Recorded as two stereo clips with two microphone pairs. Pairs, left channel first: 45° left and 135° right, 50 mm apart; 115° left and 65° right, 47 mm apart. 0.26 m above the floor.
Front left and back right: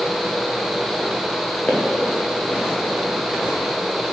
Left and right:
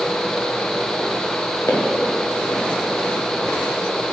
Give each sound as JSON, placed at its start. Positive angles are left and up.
{"t": 1.7, "sound": "footsteps", "azimuth_deg": 105, "distance_m": 3.5}